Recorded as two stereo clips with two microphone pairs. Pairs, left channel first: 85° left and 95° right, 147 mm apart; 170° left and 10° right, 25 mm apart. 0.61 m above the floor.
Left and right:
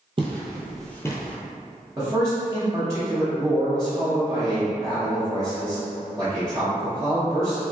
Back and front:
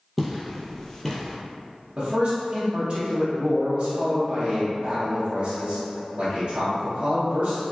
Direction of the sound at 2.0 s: 35° right.